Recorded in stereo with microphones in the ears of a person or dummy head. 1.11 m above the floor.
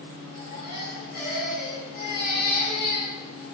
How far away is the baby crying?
About 8 m.